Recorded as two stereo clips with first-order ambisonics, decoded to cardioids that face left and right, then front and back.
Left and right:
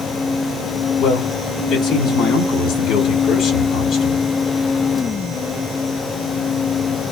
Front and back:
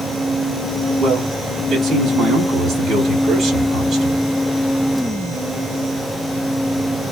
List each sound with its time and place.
1.0 s a man speaking: 115° left, 1.3 m